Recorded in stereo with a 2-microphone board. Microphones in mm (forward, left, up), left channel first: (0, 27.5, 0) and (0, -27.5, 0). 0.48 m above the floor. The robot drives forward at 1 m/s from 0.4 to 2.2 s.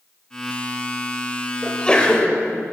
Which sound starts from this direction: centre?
A sneeze, at 1.6 s.